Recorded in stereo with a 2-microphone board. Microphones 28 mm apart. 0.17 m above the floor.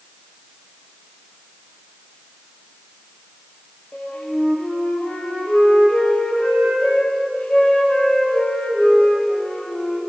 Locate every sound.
3.9 s a flute: 75° left (ahead or behind), 3.5 m